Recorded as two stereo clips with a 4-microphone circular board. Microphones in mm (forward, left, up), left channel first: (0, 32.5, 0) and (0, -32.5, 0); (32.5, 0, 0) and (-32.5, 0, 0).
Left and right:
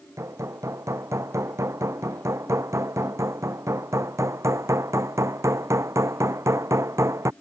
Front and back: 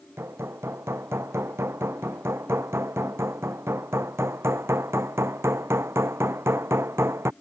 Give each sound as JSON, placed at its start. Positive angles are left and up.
{"t": 0.2, "sound": "hammering", "azimuth_deg": -135}